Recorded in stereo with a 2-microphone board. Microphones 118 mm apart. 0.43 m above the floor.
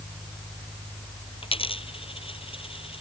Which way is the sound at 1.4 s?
50° left (ahead or behind).